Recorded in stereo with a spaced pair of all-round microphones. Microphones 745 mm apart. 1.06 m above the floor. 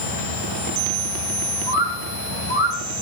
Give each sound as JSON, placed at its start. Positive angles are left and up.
{"t": 1.7, "sound": "a bird", "side_deg": 40, "distance_m": 1.6}